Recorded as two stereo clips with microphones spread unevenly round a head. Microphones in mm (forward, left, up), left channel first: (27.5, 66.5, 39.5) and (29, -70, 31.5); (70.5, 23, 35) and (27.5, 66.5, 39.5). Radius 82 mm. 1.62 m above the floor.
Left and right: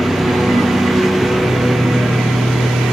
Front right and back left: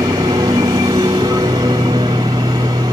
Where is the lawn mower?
Straight behind.